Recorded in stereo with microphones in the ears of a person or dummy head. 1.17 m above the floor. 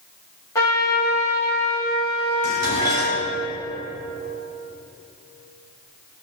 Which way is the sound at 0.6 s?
20° left (ahead or behind).